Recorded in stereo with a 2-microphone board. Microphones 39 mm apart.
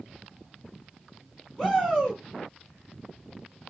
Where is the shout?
Centre (ahead or behind), 1.3 m.